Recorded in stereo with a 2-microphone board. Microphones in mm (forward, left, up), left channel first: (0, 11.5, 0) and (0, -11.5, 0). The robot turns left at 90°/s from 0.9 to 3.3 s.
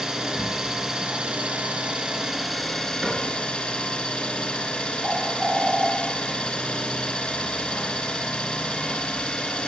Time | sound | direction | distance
0.0 | an engine running | 20° right | 0.7 m
3.0 | a cupboard door | 20° right (ahead or behind) | 1.1 m
5.0 | a bird | 70° right (ahead or behind) | 1.1 m